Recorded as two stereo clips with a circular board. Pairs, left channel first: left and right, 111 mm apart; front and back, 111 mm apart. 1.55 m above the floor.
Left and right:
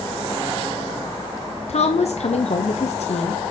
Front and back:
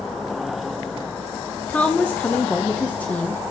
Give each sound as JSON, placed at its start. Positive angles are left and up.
{"t": 1.7, "sound": "a woman speaking", "azimuth_deg": 80, "distance_m": 0.8}